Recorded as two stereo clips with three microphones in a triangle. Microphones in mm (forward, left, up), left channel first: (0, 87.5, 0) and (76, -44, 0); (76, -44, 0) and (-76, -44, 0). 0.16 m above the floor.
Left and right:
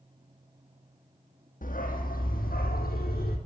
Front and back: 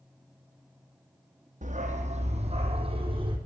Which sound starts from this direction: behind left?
A dog barking, at 1.6 s.